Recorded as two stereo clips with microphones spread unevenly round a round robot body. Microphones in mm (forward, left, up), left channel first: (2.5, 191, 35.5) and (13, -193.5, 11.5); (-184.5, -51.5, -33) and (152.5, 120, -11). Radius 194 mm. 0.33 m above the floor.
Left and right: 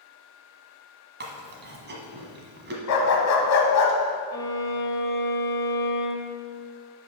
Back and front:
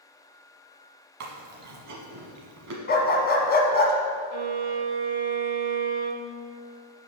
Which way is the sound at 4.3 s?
10° left.